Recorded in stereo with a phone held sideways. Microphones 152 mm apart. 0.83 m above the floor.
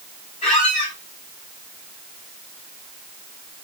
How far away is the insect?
No insect in this recording.